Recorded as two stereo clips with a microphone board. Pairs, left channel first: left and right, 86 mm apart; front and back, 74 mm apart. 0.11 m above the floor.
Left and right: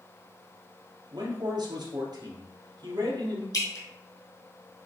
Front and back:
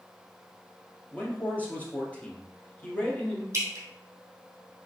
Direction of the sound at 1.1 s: 70° right.